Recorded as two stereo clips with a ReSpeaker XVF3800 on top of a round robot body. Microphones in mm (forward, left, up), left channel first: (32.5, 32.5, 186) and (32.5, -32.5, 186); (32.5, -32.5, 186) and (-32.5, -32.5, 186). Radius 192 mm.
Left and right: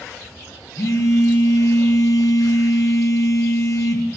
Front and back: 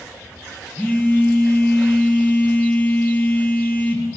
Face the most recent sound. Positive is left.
turn(degrees=60)